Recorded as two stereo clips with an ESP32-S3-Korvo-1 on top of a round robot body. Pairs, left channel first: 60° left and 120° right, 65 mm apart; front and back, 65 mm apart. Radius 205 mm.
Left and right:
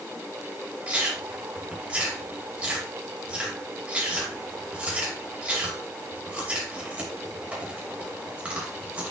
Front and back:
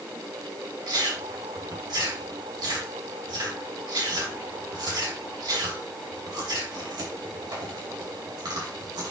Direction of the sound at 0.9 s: 170° left.